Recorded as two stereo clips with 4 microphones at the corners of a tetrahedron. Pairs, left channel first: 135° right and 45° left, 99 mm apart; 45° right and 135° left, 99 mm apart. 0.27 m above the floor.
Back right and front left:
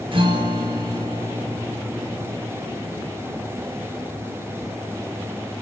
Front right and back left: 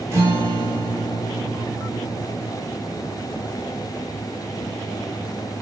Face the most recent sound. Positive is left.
turn(degrees=75)